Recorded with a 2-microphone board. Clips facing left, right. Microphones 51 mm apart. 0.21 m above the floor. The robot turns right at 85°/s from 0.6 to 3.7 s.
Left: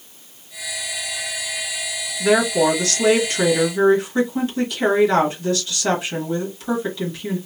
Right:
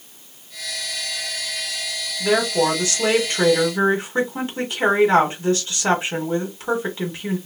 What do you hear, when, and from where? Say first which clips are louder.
2.2 s a woman speaking: left 2 dB; 165° left, 1.3 m; by 7.4 s 65° right, 1.3 m